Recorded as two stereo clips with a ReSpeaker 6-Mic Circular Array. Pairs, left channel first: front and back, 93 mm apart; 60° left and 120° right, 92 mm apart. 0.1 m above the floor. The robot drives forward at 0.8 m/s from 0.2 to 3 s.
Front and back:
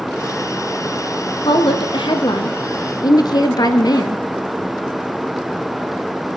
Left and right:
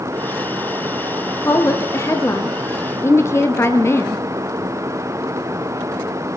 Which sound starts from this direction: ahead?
A woman speaking, at 1.4 s.